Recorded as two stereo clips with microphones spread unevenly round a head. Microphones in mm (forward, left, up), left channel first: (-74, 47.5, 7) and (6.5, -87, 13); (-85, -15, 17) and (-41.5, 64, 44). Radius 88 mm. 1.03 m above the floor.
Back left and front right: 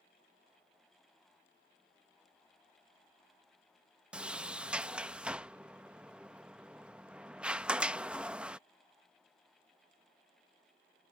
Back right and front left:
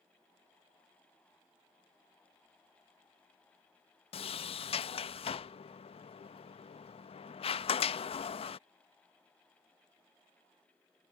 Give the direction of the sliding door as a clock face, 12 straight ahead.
5 o'clock.